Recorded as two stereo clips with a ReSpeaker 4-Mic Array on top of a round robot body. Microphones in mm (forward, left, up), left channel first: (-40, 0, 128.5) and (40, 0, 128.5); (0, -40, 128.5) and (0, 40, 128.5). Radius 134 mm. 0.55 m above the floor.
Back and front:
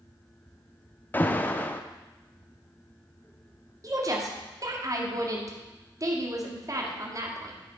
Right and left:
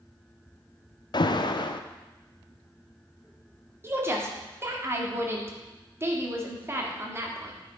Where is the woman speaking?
35° left, 2.0 m.